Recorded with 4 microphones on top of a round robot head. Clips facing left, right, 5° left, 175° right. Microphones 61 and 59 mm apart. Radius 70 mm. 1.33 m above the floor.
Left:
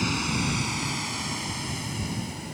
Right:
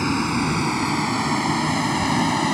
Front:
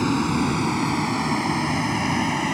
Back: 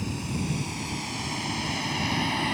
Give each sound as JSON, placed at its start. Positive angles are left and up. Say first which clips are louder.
{"t": 0.0, "sound": "a vehicle", "louder": "right 6 dB, front 11 dB", "azimuth_deg": -40}